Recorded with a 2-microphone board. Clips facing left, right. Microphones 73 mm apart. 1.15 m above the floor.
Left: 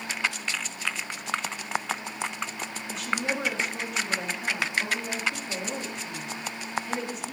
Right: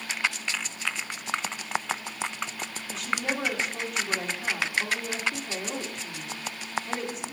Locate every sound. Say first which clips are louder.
2.9 s a woman speaking: left 1 dB; centre (ahead or behind), 1.6 m